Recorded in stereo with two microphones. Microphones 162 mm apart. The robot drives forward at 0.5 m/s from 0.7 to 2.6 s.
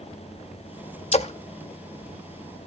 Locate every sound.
1.1 s a splash: 40° left (ahead or behind), 0.5 m